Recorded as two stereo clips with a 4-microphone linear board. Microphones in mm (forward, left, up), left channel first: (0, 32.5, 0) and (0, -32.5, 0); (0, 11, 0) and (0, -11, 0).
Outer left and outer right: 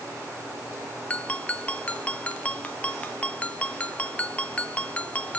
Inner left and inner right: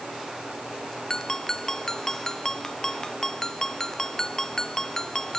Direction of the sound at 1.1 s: 20° left (ahead or behind).